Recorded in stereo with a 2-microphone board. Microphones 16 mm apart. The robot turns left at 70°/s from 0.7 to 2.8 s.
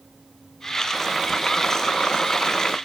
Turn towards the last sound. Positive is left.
turn(degrees=60)